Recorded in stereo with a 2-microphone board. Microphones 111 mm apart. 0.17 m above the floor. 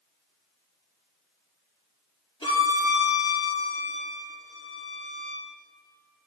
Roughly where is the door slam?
No door slam in this recording.